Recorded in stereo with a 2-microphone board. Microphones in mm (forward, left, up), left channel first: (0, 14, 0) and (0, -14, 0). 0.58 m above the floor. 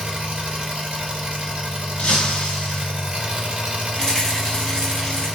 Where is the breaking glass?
60° left (ahead or behind), 0.8 m.